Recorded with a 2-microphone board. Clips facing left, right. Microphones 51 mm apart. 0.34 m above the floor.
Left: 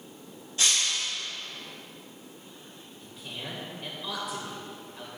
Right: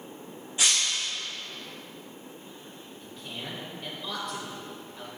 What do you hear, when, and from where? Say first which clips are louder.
0.6 s breaking glass: even; 15° right (ahead or behind), 2.5 m
3.0 s a man speaking: even; 5° left (ahead or behind), 1.5 m